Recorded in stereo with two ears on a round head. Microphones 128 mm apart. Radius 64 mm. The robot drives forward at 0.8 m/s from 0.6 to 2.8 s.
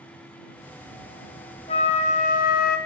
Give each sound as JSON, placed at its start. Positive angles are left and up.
{"t": 1.7, "sound": "a flute", "side_deg": 40, "distance_m": 1.2}